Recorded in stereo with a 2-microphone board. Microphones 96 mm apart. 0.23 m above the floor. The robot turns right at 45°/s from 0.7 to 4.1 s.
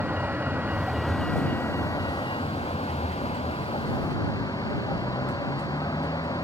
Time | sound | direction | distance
0.0 | a vehicle | 15° right | ?